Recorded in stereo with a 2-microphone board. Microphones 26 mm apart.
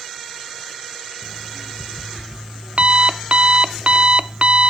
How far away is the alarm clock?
About 0.5 m.